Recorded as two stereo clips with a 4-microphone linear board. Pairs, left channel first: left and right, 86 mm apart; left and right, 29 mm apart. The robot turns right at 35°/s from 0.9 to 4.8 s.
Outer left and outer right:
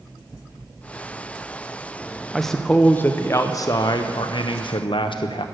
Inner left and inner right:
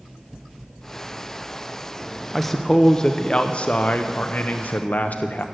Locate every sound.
2.3 s a man speaking: straight ahead, 0.6 m; by 5.5 s 85° left, 0.6 m